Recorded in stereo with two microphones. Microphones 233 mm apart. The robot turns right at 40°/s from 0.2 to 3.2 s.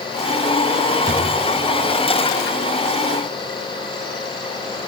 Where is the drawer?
30° right (ahead or behind), 3.5 m; by 1.3 s 45° right (ahead or behind), 3.5 m.